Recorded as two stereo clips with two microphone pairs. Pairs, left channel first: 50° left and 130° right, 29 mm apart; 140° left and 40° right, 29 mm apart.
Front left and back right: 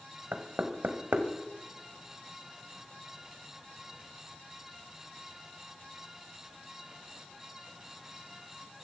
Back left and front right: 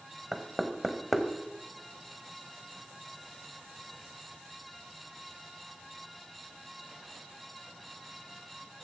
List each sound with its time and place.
0.3 s knocking: 130° right, 1.6 m